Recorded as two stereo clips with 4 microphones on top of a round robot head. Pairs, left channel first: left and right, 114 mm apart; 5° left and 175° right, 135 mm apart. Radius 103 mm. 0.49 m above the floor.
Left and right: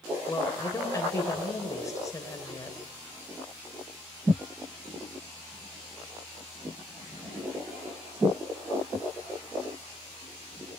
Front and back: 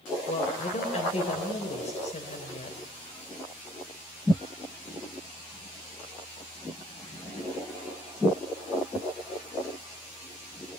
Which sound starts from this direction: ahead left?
A woman speaking, at 0.3 s.